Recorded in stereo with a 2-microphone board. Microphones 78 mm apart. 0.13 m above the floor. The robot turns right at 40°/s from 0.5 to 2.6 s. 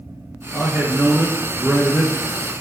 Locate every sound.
0.5 s a man speaking: 95° right, 1.6 m; by 2.1 s 35° right, 1.6 m